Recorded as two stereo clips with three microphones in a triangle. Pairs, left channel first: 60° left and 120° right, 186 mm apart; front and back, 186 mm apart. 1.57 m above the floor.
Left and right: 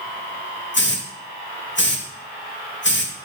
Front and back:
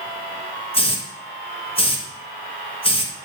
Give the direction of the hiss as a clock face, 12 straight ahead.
10 o'clock.